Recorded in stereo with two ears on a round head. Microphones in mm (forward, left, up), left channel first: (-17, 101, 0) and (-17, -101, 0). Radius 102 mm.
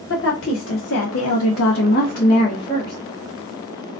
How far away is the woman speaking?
About 1.0 m.